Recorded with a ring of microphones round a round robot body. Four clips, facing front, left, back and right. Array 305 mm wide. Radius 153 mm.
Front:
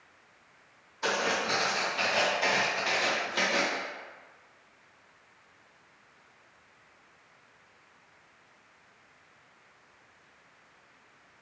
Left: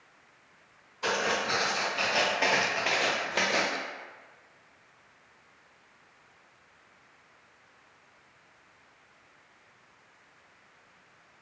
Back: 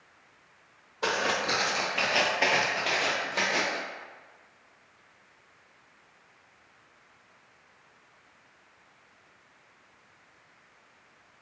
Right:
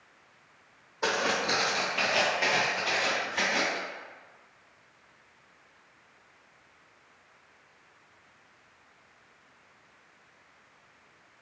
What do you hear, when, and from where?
1.0 s footsteps: 125° right, 1.0 m; by 3.8 s 95° left, 1.0 m